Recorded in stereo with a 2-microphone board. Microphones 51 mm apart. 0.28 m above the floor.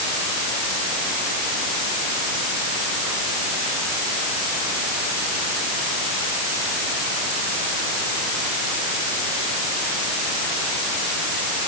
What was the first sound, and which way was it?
Only background noise.